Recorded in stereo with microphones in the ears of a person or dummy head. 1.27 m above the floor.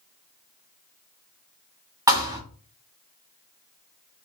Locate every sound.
2.1 s a thud: 15° right (ahead or behind), 1.0 m